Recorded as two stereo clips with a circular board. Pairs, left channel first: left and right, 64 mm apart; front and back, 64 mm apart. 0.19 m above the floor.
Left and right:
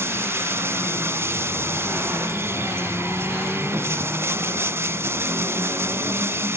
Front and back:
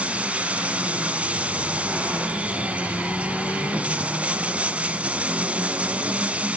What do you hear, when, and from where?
0.0 s running water: 120° right, 1.0 m